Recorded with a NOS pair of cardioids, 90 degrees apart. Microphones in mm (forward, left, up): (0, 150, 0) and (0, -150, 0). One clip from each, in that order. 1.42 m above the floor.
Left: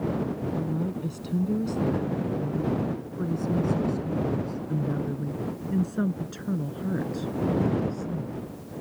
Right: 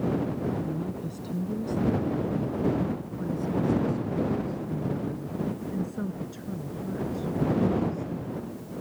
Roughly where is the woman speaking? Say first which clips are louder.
Left 2 dB; ahead left.